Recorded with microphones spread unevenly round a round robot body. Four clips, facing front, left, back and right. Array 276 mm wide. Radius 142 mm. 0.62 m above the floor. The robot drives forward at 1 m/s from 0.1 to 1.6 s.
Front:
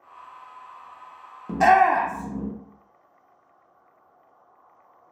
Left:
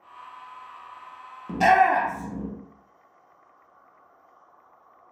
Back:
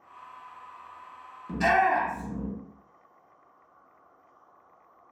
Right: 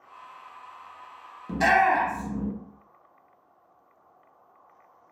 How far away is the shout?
About 0.8 m.